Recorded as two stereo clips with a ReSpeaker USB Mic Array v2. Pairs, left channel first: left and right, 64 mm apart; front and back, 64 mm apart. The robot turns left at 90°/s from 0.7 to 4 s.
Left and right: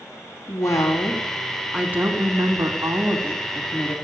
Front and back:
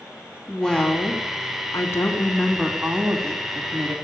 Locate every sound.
0.5 s a woman speaking: 75° left, 2.5 m; by 4.0 s 145° left, 2.5 m